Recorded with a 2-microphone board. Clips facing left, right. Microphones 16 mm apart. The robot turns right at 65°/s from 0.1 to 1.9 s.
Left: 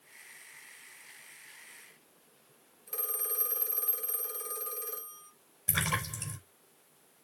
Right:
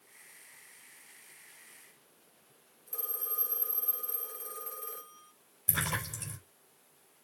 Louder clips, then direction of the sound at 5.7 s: Left 2 dB; 35° left (ahead or behind).